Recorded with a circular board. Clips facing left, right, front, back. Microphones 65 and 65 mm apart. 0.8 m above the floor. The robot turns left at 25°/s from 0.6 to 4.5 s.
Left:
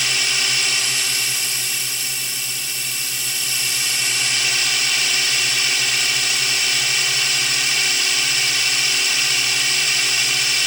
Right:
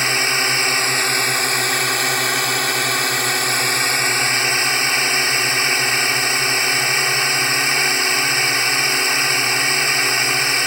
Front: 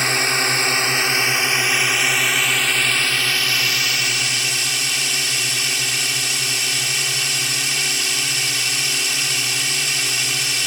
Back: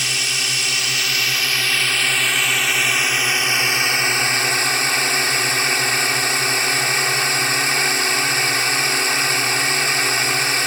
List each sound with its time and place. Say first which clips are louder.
0.0 s a drone: right 4 dB, front 5 dB; 40° right; by 10.7 s 140° right